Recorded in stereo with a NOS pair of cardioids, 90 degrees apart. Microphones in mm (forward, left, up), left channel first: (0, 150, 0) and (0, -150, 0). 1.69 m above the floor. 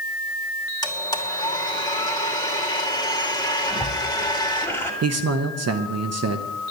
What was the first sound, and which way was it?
A blender, 10° left.